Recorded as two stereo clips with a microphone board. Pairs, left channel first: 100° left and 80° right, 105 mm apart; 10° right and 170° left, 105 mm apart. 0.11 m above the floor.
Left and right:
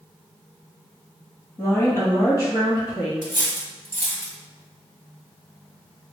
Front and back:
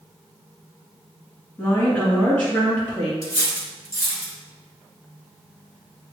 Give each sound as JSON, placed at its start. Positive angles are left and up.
{"t": 1.6, "sound": "a woman speaking", "azimuth_deg": 55, "distance_m": 1.7}
{"t": 3.2, "sound": "cutlery clinking", "azimuth_deg": 35, "distance_m": 1.0}